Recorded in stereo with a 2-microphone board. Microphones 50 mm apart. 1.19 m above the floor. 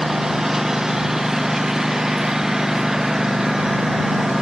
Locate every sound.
0.0 s a lawn mower: 10° right (ahead or behind)